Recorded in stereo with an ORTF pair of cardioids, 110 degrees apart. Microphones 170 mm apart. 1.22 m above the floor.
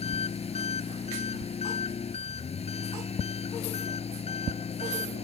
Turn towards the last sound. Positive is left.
turn(degrees=35)